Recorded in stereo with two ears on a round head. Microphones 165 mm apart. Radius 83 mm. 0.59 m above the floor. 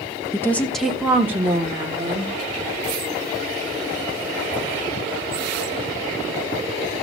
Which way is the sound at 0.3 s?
15° left (ahead or behind).